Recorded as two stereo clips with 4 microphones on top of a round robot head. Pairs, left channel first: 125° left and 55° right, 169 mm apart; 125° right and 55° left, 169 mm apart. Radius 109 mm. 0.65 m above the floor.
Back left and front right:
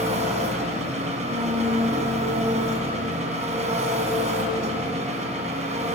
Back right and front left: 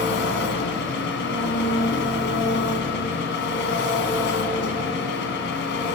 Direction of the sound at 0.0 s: 110° right.